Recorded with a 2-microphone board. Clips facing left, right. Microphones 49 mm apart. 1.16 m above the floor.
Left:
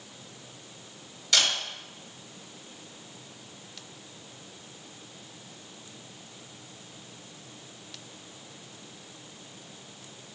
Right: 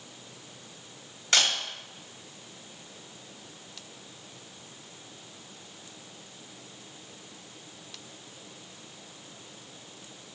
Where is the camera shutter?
45° right (ahead or behind), 1.3 m.